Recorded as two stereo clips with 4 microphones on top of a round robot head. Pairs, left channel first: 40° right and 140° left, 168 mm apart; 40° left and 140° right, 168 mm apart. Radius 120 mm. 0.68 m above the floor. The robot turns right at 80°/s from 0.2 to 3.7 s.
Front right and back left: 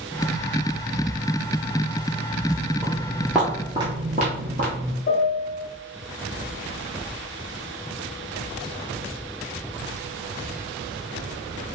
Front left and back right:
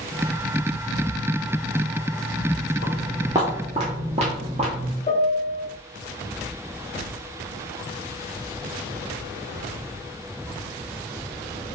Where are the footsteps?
115° right, 0.7 m; by 4.9 s 170° left, 1.2 m.